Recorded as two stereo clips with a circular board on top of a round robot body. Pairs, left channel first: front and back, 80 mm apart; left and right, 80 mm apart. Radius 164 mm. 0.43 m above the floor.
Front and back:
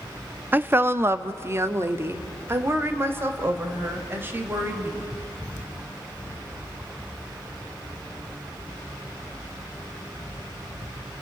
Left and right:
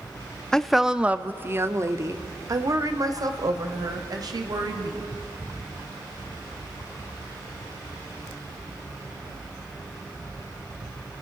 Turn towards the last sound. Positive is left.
turn(degrees=-120)